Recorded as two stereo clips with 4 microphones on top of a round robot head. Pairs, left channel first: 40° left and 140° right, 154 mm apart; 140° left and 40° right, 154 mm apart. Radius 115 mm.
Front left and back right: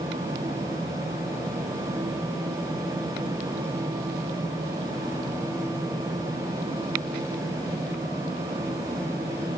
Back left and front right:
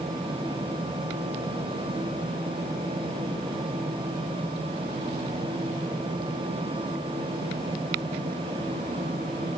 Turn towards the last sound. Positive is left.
No sound to turn to.